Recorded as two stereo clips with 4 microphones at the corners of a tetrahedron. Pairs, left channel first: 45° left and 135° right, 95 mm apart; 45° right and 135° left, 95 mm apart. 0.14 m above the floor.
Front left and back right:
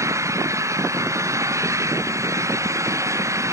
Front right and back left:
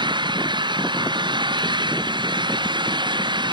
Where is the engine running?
170° left.